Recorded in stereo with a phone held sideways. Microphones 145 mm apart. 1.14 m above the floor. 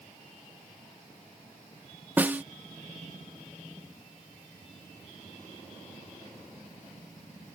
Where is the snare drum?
10° right (ahead or behind).